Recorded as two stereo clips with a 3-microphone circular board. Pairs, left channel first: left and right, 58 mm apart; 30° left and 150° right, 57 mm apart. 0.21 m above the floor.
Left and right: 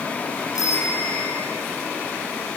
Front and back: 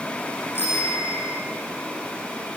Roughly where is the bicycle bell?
Left.